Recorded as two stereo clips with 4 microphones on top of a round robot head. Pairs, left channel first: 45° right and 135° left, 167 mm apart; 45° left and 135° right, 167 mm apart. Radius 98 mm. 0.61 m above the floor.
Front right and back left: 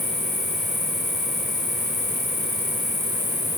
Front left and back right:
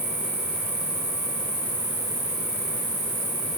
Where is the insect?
135° right, 1.5 m.